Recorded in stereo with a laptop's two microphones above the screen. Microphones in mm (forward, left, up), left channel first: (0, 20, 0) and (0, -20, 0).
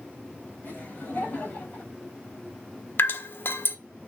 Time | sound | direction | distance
0.6 | laughter | 50° left (ahead or behind) | 7 m
3.0 | dripping | 70° left (ahead or behind) | 1.3 m